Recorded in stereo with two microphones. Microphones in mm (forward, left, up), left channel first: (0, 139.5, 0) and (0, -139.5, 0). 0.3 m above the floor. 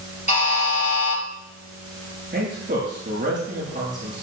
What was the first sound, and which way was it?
A buzzer, 25° left (ahead or behind).